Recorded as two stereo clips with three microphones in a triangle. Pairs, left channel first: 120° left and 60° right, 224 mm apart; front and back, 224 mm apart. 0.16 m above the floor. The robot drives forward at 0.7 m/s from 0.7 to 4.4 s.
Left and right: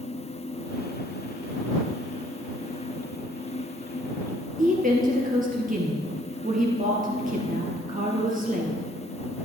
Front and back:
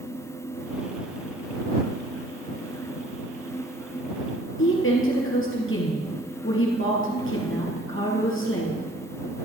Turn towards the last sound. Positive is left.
turn(degrees=-10)